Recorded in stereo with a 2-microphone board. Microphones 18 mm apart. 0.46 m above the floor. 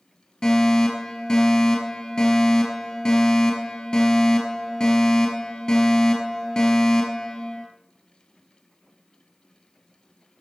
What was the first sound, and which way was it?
A fire alarm, 50° left (ahead or behind).